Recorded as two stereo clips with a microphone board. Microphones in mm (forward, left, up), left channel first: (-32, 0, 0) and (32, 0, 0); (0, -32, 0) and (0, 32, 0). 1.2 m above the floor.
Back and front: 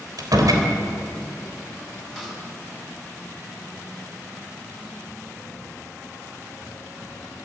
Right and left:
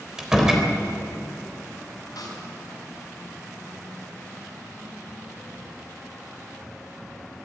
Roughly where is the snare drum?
Right.